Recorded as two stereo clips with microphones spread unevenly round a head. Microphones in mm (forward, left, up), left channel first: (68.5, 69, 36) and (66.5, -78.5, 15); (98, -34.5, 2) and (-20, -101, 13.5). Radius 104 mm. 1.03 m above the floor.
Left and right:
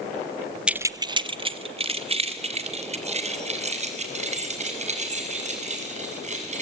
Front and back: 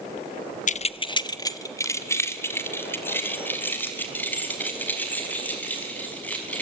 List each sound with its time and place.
0.7 s keys jangling: 5° right, 0.5 m; by 6.6 s 50° right, 6.5 m